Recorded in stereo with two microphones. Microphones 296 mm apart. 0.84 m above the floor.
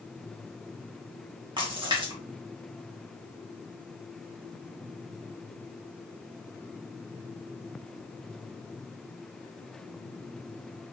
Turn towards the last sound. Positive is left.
turn(degrees=-15)  # may be behind; listen again after turning